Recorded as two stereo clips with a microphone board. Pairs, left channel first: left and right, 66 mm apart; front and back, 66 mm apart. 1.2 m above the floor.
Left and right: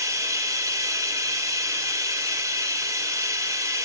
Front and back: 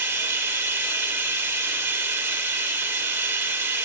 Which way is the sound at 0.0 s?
130° right.